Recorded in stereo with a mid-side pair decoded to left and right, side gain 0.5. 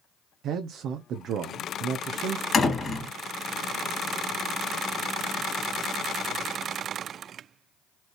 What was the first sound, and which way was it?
A man speaking, 65° right.